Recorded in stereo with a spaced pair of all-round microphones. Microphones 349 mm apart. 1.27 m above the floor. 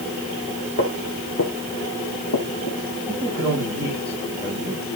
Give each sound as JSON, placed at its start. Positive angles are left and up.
{"t": 0.8, "sound": "footsteps", "side_deg": 35, "distance_m": 2.5}
{"t": 3.1, "sound": "a man speaking", "side_deg": -10, "distance_m": 6.0}